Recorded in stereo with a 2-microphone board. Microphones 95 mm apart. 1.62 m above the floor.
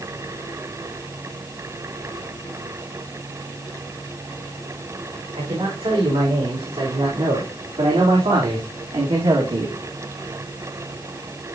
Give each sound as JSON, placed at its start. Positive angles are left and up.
{"t": 5.3, "sound": "a man speaking", "side_deg": -80, "distance_m": 6.0}